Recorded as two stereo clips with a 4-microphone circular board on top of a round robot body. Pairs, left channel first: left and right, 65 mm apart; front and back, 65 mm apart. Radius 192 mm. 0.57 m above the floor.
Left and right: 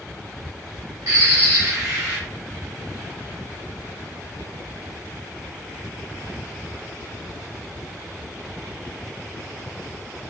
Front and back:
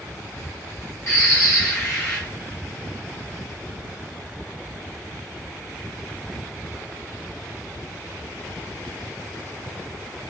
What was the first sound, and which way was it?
A bird, 50° right.